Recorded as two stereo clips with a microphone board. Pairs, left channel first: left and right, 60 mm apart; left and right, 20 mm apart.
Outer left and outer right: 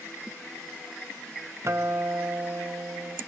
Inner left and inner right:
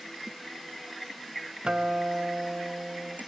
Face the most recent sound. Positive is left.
turn(degrees=-50)  # may be behind; listen again after turning